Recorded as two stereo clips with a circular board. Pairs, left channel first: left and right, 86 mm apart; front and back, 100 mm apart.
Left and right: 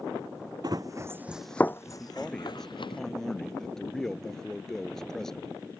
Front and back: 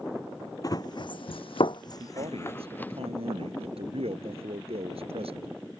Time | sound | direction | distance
0.6 | running footsteps | 50° right | ?
2.0 | a man speaking | 175° left | ?